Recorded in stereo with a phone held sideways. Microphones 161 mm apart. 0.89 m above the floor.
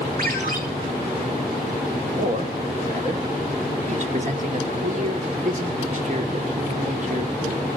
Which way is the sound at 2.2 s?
50° right (ahead or behind).